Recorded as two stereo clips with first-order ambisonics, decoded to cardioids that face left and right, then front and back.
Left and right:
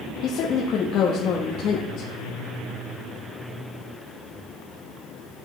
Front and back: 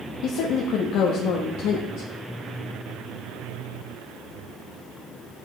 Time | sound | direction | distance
0.2 | a woman speaking | 40° left | 1.0 m